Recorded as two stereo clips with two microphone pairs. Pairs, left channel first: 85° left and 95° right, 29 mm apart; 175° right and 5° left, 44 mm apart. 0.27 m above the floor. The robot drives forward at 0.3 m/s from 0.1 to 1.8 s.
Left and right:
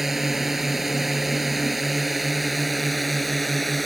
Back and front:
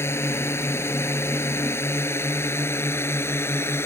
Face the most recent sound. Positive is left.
turn(degrees=175)